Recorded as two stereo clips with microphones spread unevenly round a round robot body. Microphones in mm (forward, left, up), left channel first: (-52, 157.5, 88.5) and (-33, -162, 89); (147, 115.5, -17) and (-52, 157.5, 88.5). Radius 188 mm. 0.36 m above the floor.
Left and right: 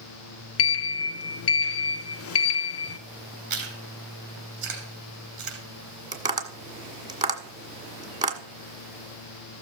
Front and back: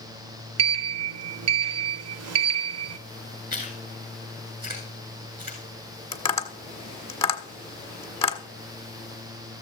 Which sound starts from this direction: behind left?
A sliding door, at 0.6 s.